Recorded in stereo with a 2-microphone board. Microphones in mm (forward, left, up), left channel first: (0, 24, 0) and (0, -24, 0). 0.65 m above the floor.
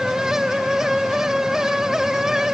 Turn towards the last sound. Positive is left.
No sound to turn to.